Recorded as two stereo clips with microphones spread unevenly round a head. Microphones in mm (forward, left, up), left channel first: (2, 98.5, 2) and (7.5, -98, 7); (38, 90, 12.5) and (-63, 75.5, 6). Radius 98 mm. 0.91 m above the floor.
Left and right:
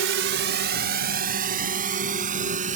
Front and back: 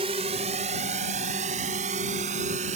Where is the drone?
120° right; by 2.8 s 145° right.